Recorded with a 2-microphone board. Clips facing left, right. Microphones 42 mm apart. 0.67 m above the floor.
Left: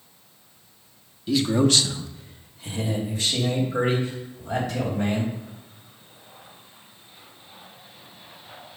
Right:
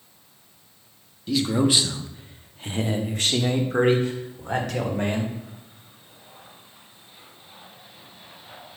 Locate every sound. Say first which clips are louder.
1.3 s a man speaking: left 1 dB; 5° left (ahead or behind), 0.8 m; by 5.3 s 70° right (ahead or behind), 2.5 m